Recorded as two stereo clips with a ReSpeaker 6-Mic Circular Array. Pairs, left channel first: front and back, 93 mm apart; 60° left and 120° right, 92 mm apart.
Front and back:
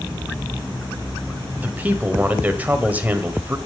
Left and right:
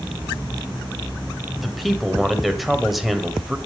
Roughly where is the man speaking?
Behind left.